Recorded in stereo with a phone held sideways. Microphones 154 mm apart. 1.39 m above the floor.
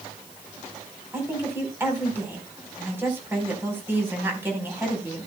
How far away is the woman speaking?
About 4.5 m.